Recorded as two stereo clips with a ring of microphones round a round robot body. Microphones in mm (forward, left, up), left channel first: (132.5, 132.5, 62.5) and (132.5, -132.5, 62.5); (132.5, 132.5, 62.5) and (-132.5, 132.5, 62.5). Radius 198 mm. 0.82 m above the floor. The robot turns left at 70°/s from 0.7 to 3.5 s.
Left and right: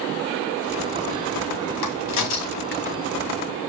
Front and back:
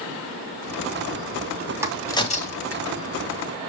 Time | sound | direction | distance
1.8 | a crack | 100° left | 2.5 m